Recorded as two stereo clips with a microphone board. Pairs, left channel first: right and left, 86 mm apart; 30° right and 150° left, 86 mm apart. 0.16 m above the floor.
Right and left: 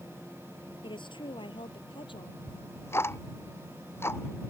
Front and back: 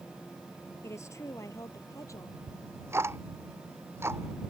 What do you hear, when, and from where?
0.8 s a woman speaking: 85° right; by 2.4 s 80° right
2.5 s ticking: 150° right